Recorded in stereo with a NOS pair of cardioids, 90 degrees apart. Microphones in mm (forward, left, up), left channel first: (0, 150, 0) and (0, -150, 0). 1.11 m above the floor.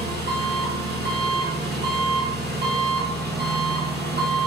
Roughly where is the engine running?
Ahead right.